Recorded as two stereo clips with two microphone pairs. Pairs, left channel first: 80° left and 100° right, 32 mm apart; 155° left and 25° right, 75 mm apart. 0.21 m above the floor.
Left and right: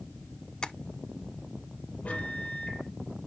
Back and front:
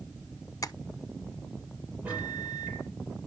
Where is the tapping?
140° left, 0.5 m.